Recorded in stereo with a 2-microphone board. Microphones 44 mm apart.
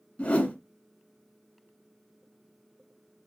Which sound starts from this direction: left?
A whoosh, at 0.2 s.